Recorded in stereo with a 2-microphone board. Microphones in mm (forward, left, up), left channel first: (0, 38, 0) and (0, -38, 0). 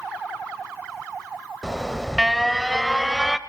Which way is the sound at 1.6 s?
Centre (ahead or behind).